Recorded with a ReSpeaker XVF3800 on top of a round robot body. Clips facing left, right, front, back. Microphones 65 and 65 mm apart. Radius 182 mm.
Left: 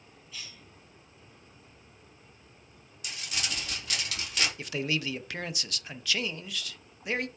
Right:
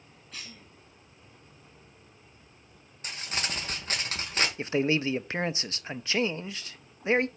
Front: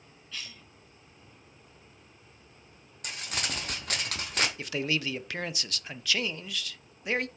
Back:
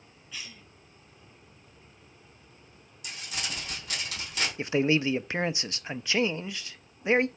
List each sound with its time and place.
0.3 s a cough: 100° right, 2.0 m
3.0 s crumpling: 35° right, 1.6 m
4.6 s a man speaking: 130° right, 0.6 m